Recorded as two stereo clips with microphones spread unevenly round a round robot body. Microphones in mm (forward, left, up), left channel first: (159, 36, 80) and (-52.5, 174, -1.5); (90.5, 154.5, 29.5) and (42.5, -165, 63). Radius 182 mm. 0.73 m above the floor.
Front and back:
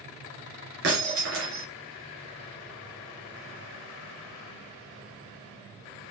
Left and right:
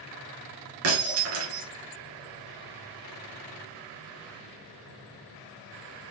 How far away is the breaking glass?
About 2.5 m.